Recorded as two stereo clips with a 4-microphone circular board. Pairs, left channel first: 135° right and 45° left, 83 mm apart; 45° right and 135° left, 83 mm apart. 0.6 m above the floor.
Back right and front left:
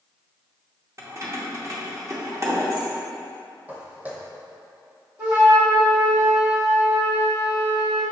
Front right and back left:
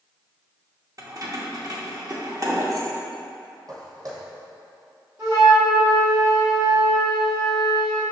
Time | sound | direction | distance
1.0 | keys jangling | 95° left | 0.7 m
3.7 | footsteps | 110° left | 0.9 m
5.2 | a flute | 100° left | 1.4 m